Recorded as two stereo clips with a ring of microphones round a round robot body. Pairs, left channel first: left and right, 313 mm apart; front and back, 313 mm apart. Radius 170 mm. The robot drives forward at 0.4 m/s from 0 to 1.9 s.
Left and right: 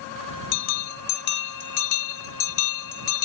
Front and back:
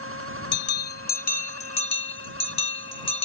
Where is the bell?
55° left; by 3.2 s 70° left.